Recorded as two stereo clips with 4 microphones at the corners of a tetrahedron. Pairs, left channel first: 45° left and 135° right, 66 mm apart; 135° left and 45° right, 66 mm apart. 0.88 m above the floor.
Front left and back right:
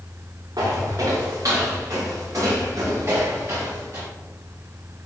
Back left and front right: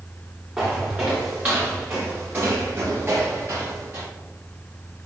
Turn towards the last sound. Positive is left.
turn(degrees=-90)